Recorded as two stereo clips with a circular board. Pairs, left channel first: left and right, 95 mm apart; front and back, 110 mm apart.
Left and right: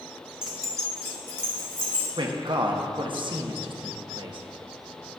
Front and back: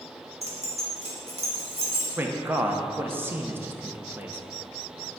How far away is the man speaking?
About 0.8 m.